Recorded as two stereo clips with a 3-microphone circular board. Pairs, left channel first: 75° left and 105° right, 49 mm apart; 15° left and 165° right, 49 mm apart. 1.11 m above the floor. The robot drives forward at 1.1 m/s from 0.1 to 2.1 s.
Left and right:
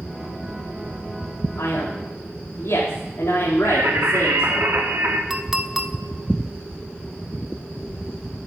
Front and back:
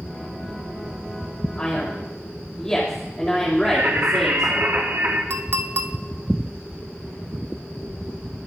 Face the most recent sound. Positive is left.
turn(degrees=170)